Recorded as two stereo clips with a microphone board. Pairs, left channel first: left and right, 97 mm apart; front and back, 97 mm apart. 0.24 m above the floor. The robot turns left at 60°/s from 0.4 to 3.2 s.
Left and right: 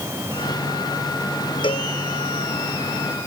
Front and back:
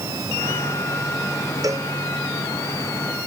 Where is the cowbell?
125° left; by 1.9 s 110° left.